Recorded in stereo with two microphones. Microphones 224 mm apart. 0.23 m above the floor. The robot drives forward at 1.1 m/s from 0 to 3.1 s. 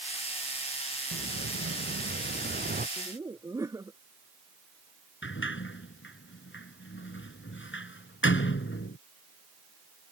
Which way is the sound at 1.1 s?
70° right (ahead or behind).